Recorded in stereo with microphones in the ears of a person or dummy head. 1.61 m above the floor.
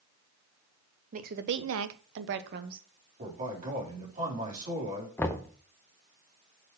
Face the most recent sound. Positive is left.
turn(degrees=10)  # may be behind; listen again after turning